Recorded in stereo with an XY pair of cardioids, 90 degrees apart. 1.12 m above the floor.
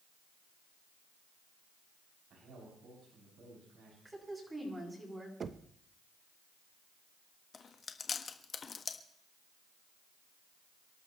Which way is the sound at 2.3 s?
70° right.